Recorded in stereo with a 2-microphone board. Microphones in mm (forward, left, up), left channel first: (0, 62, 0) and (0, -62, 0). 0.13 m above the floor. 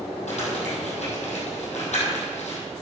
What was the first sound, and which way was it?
Crumpling, 65° left (ahead or behind).